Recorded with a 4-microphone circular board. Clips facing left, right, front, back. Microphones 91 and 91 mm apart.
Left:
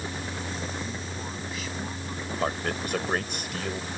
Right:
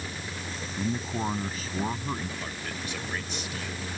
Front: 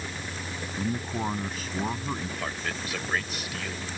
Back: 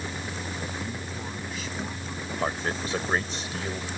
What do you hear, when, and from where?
0.8 s a man speaking: 45° right
2.4 s a man speaking: 120° left